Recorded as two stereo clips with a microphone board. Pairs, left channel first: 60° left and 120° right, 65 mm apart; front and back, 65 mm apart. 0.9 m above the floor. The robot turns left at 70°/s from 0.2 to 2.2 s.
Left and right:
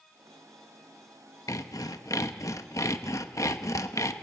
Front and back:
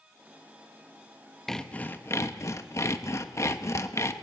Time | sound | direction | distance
1.5 | sawing | 85° left | 0.9 m